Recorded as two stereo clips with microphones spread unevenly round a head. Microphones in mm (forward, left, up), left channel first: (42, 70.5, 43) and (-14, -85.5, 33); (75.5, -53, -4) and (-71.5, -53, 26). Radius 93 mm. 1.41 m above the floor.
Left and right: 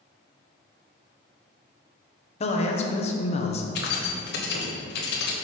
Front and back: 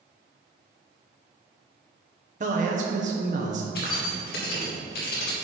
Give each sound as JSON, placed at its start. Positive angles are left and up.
{"t": 2.4, "sound": "a man speaking", "azimuth_deg": 125, "distance_m": 0.9}
{"t": 3.8, "sound": "keys jangling", "azimuth_deg": 45, "distance_m": 1.1}